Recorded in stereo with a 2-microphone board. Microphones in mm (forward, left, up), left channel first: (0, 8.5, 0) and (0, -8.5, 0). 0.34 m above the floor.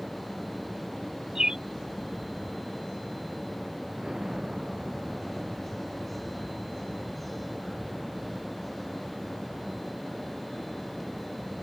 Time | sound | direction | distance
1.4 | a bird | 30° right (ahead or behind) | ?
4.0 | an explosion | 35° right (ahead or behind) | ?